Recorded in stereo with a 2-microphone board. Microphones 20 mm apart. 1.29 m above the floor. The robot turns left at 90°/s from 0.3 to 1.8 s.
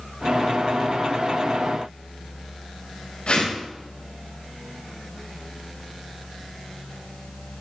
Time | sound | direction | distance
3.3 | a whoosh | 55° left (ahead or behind) | 6.5 m